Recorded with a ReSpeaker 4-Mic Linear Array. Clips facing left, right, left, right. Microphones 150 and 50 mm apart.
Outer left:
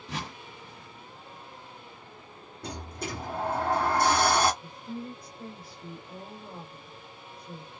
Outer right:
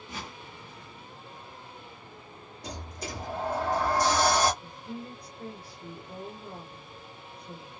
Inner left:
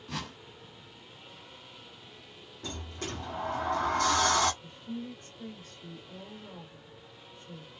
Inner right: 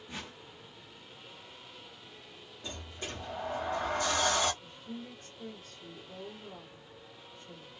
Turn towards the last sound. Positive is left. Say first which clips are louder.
# outer left 2 dB, inner left 4 dB
turn(degrees=25)  # may be behind; listen again after turning